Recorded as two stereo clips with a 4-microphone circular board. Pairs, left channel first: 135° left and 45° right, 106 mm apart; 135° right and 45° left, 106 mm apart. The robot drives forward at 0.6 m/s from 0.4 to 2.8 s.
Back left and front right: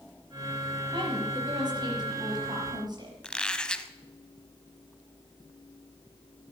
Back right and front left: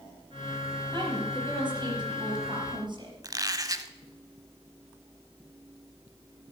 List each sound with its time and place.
0.9 s a woman speaking: 5° left, 6 m
3.2 s a squeak: 60° left, 0.7 m